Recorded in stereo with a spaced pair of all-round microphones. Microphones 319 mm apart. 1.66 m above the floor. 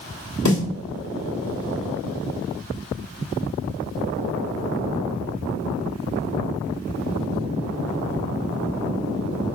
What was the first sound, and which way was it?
A snare drum, 60° left (ahead or behind).